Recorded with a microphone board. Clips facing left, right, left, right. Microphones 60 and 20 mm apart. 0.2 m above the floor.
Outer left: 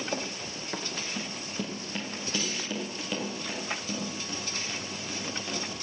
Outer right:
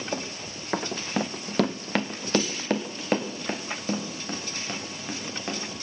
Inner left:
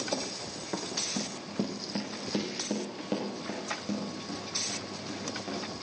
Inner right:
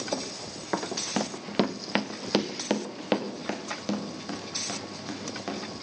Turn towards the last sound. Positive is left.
turn(degrees=-40)  # may be behind; listen again after turning